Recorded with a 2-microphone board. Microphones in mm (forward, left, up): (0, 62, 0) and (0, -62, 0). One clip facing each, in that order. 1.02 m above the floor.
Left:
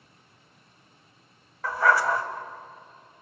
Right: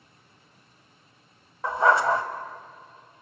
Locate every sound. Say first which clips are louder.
1.6 s a dog barking: right 2 dB; 25° right (ahead or behind), 1.4 m